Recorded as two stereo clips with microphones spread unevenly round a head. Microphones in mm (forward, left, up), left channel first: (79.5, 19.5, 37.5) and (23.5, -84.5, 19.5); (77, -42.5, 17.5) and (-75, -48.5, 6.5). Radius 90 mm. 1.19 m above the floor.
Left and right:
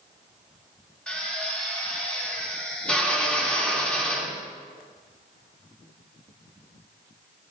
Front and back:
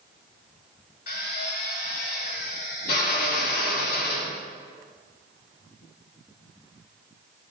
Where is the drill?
20° right, 2.5 m.